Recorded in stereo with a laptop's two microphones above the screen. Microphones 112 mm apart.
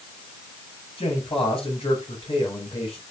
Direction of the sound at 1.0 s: 55° left (ahead or behind).